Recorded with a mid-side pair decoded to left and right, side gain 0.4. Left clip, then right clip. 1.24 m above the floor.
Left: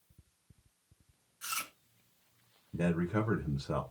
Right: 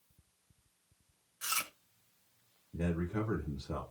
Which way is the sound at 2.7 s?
60° left.